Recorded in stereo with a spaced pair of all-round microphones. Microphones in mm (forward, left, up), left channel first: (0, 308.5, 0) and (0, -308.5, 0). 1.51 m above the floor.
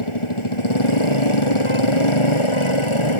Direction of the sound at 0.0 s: 50° left (ahead or behind).